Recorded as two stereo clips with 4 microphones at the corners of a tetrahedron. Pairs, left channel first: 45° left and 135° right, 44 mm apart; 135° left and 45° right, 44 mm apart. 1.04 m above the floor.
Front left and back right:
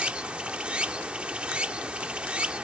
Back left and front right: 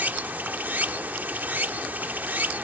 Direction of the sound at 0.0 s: 80° right.